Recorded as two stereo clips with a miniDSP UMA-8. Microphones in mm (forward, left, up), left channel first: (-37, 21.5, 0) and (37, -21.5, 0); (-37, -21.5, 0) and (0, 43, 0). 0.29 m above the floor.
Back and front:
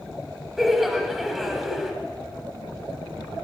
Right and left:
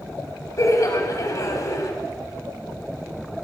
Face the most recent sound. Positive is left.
turn(degrees=-115)